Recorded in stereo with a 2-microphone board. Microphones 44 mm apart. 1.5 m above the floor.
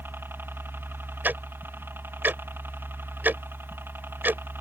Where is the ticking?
45° right (ahead or behind).